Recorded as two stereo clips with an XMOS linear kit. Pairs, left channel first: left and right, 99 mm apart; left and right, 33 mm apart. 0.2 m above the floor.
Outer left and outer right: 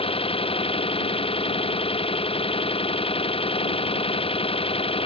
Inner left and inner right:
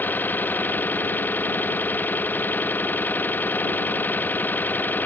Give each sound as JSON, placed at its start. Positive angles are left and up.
{"t": 0.0, "sound": "an engine running", "side_deg": 65}